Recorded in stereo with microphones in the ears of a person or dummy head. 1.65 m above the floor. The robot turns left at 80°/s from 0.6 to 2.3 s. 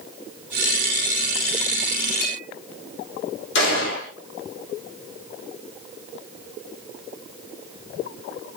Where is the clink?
45° left (ahead or behind), 1.5 m; by 2.5 s 55° left (ahead or behind), 1.5 m.